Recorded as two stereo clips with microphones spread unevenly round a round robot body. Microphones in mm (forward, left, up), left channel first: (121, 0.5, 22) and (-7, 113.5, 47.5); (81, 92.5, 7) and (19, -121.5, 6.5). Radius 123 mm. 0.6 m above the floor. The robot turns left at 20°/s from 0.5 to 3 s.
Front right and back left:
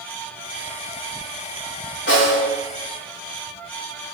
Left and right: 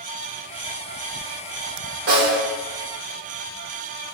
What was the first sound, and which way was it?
A snare drum, 80° right.